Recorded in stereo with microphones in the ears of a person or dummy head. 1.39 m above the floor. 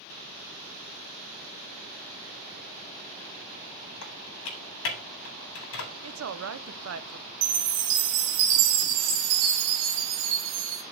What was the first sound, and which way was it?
Typing on a keyboard, 75° left (ahead or behind).